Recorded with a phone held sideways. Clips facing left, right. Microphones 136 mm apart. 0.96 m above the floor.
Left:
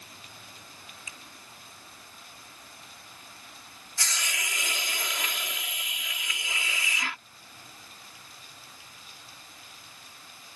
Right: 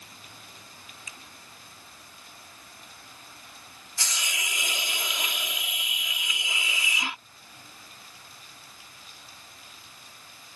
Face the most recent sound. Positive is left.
turn(degrees=-20)  # may be behind; listen again after turning